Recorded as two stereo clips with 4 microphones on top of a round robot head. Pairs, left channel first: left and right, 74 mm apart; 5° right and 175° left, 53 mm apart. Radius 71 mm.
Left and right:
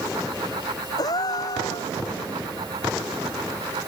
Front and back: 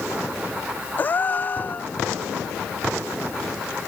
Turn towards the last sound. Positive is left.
turn(degrees=50)